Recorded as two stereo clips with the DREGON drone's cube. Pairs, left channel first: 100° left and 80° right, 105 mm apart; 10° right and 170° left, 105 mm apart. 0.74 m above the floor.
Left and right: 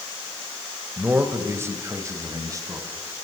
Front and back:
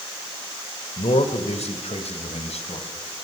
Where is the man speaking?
10° right, 2.5 m; by 3.2 s 25° right, 5 m.